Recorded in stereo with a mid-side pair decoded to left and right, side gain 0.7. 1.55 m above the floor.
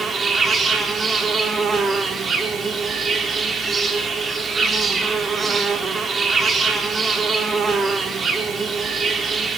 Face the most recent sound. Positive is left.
turn(degrees=-30)